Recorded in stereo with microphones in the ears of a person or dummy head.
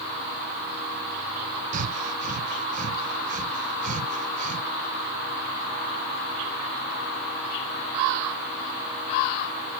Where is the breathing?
45° right (ahead or behind), 0.7 m.